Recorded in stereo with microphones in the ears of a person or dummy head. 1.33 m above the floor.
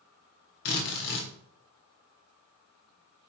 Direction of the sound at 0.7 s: 50° left (ahead or behind).